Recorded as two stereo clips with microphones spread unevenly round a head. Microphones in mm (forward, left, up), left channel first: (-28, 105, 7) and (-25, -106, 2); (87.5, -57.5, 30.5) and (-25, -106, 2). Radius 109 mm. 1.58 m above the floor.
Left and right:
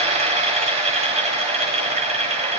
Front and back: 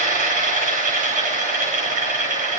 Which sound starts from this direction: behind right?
A machine running, at 0.0 s.